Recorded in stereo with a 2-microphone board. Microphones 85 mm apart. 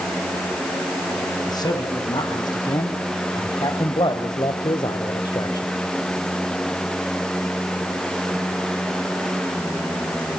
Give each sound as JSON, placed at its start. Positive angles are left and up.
{"t": 1.5, "sound": "a man speaking", "side_deg": 50, "distance_m": 4.0}